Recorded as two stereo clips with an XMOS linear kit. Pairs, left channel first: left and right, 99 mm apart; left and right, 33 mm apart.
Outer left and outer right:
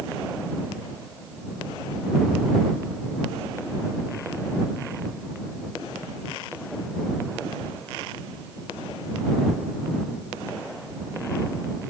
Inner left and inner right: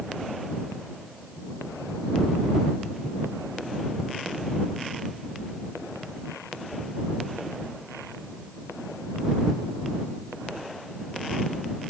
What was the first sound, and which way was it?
Only background noise.